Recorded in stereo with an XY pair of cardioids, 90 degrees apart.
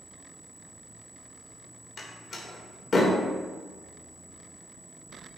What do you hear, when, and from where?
2.0 s a door slam: 50° left, 1.7 m